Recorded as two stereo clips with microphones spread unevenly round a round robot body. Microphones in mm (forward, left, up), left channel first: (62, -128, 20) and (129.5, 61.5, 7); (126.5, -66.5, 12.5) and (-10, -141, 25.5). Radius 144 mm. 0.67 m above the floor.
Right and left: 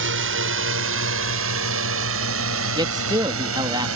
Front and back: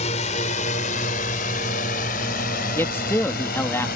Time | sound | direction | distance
0.0 | a drone | 85° left | ?
2.8 | a man speaking | 70° left | ?